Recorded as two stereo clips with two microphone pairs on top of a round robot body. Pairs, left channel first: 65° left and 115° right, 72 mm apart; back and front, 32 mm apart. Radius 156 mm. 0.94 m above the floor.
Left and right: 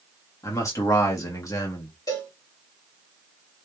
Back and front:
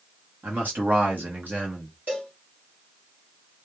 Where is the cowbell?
30° left, 1.9 m.